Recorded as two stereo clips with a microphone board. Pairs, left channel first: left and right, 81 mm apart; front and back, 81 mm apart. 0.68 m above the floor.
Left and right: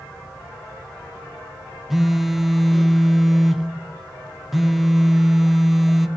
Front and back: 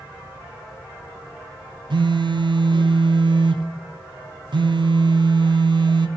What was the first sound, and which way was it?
A phone buzzing, straight behind.